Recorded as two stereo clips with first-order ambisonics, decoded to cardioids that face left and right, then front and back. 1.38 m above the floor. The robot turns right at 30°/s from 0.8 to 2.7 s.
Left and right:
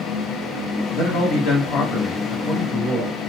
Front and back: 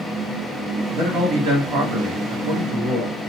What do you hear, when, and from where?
0.9 s a man speaking: 125° left, 1.9 m; by 3.1 s straight behind, 1.9 m